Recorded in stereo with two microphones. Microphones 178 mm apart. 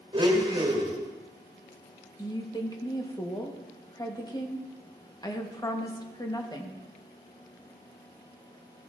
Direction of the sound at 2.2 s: 25° left (ahead or behind).